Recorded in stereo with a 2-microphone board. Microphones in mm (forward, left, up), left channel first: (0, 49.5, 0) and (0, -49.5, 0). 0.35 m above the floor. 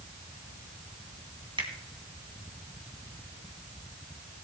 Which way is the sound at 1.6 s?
55° right (ahead or behind).